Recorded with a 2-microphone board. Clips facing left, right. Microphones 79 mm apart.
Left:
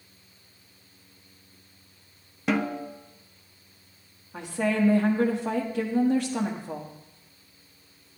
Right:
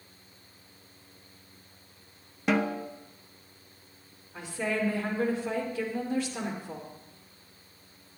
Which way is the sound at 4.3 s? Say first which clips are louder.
Left 5 dB; 65° left (ahead or behind).